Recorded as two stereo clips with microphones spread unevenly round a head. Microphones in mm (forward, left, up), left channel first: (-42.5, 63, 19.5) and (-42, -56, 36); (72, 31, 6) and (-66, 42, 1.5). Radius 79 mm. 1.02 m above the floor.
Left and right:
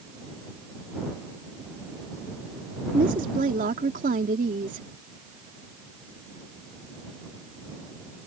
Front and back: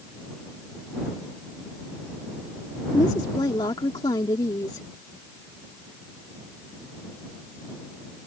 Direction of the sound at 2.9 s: 70° right.